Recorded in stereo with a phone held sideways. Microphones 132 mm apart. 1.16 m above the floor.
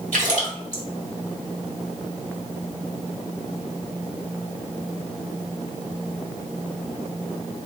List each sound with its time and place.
0.1 s a splash: 70° right (ahead or behind), 2.0 m